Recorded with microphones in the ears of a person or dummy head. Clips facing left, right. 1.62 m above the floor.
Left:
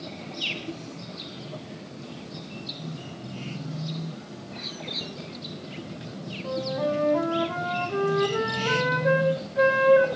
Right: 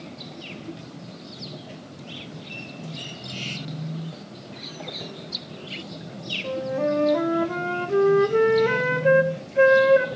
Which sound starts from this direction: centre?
A bird, at 4.5 s.